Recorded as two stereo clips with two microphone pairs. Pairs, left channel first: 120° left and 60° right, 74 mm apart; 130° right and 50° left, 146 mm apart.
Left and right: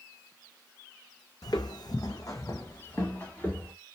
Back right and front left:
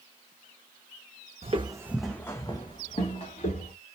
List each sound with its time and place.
1.4 s footsteps: 90° left, 0.6 m; by 3.7 s 170° right, 1.5 m